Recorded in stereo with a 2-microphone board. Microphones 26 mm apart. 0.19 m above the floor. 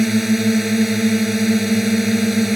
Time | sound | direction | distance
0.0 | a drone | 5° right (ahead or behind) | ?